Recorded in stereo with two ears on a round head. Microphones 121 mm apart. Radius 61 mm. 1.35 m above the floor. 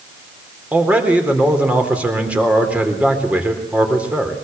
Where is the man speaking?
10° right (ahead or behind), 4 m.